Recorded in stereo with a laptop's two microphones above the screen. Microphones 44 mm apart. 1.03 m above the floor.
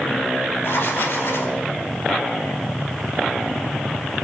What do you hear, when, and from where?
0.6 s writing: 65° left (ahead or behind), 1.6 m